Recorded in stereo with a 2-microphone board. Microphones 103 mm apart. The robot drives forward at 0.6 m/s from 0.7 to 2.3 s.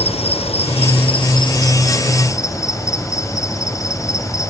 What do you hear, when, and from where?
0.0 s an insect: 80° left, 0.7 m; by 4.5 s 35° left (ahead or behind), 1.3 m